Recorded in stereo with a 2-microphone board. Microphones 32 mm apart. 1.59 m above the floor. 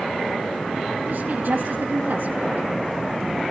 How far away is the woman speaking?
About 2 m.